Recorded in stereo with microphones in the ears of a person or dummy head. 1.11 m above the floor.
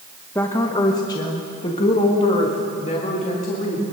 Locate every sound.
0.3 s a woman speaking: 10° left (ahead or behind), 1.1 m; by 3.8 s 35° left (ahead or behind), 3 m